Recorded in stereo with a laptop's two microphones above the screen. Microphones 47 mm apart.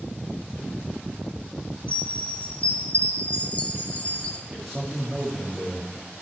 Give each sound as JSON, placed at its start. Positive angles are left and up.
{"t": 1.9, "sound": "a chime", "side_deg": 35, "distance_m": 0.9}
{"t": 4.5, "sound": "a man speaking", "side_deg": -5, "distance_m": 1.9}